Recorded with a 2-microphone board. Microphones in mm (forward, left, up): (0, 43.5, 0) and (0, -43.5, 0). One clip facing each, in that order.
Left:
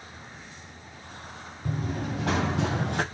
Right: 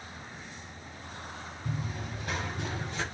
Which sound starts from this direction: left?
Running footsteps, at 1.6 s.